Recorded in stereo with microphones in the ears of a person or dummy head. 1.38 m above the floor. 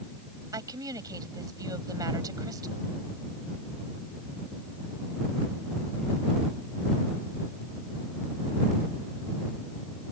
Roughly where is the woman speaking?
Right.